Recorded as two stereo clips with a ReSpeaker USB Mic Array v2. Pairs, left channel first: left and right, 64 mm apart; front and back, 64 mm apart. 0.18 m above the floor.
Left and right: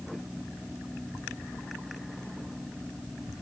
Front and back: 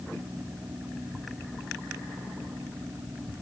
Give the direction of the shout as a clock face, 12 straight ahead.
I don't hear a shout.